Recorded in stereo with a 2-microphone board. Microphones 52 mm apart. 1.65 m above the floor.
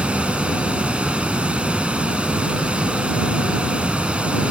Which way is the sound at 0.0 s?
20° right (ahead or behind).